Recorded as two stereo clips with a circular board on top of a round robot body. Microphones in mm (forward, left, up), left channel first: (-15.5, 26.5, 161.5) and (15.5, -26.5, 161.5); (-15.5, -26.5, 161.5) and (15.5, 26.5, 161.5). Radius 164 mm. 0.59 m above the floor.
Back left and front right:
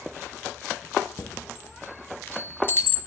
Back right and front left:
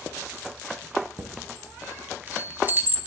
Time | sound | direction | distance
1.2 | a chime | 85° left | 1.3 m